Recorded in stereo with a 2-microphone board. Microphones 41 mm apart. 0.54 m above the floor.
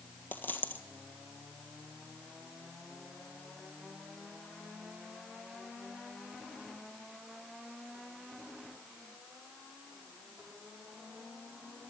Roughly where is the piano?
I don't hear a piano.